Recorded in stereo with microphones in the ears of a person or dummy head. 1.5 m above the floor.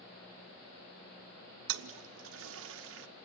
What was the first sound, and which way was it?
A toilet flushing, 70° right (ahead or behind).